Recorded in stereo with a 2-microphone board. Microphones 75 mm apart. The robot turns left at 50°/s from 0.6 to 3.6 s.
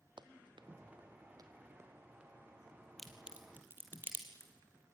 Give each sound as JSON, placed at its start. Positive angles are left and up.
{"t": 0.2, "sound": "running footsteps", "side_deg": -85, "distance_m": 1.4}
{"t": 3.0, "sound": "a crack", "side_deg": 5, "distance_m": 3.5}